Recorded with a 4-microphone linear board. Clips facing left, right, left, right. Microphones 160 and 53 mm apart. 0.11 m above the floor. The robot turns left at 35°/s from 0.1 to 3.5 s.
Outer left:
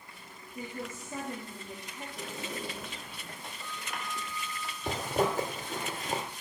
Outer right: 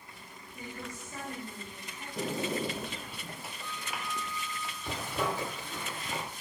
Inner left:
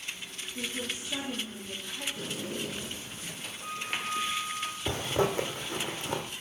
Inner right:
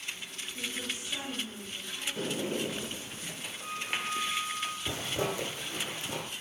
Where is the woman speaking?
140° left, 4 m; by 2.1 s 85° left, 4 m.